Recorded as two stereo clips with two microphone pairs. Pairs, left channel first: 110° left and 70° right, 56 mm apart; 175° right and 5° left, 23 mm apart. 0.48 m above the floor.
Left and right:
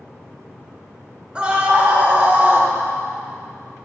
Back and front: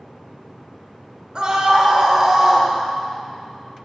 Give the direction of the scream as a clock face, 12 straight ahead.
12 o'clock.